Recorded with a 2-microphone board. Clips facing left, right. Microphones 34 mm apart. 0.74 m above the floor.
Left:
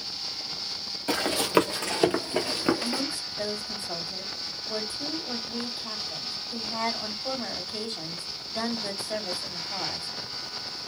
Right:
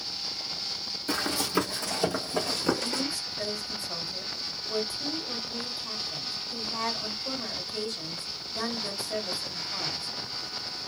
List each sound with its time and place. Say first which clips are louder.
1.1 s running footsteps: left 5 dB; 60° left (ahead or behind), 1.3 m; by 3.0 s 20° left (ahead or behind), 0.9 m
2.8 s a woman speaking: left 1 dB; 50° left (ahead or behind), 1.9 m